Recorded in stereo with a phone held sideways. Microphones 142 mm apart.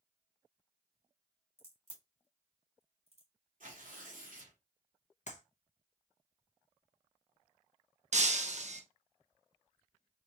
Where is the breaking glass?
55° right (ahead or behind), 0.7 m.